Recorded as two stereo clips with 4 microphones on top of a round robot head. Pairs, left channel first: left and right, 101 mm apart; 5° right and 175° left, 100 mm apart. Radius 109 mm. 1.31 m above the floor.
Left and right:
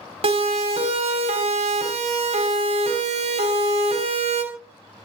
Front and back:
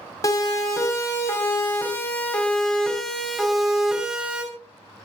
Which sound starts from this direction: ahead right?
A siren, at 0.2 s.